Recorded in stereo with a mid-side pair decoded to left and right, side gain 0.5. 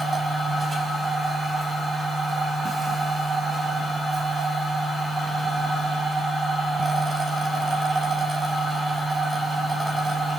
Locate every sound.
0.0 s a machine running: 35° right, 4.5 m